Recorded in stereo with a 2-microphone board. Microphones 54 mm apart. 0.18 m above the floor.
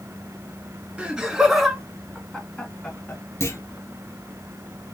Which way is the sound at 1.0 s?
15° right (ahead or behind).